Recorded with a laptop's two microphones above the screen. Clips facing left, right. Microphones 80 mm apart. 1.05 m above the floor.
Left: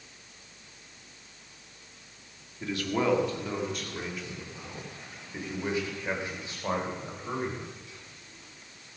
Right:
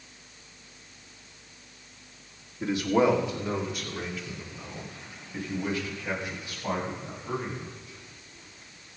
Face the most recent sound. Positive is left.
turn(degrees=30)  # may be behind; listen again after turning